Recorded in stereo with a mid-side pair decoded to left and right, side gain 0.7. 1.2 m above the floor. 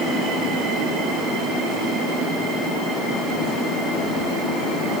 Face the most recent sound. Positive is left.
No sound to turn to.